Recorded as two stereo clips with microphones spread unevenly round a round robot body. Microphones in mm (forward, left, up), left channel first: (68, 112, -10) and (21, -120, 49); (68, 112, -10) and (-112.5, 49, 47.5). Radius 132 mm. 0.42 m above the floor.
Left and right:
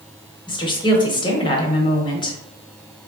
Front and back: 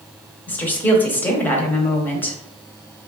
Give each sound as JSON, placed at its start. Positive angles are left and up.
{"t": 0.5, "sound": "a woman speaking", "azimuth_deg": 60, "distance_m": 0.9}